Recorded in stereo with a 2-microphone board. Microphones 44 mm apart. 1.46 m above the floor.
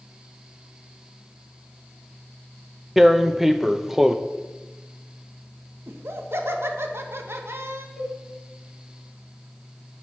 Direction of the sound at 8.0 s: 5° right (ahead or behind).